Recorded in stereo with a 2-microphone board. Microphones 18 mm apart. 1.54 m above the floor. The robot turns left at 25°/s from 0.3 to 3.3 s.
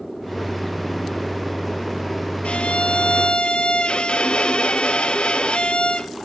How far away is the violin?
About 1.1 m.